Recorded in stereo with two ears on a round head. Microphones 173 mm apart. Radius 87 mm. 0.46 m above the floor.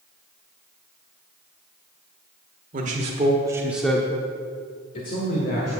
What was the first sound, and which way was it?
A man speaking, 40° right (ahead or behind).